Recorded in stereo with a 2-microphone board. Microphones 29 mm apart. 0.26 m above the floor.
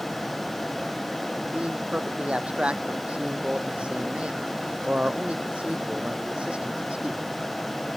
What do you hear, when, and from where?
1.5 s a man speaking: 35° right (ahead or behind)